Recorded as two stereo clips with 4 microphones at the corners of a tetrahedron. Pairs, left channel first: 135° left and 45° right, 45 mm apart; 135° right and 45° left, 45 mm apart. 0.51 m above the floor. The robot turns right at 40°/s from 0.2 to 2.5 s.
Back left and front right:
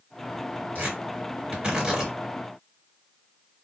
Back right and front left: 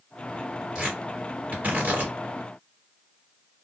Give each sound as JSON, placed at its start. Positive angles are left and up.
{"t": 0.8, "sound": "tearing paper", "azimuth_deg": -20, "distance_m": 1.6}